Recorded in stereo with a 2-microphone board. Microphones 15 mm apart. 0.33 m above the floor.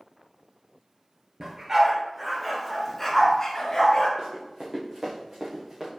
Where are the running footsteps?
45° right (ahead or behind), 1.8 m; by 5.9 s 20° right (ahead or behind), 2 m.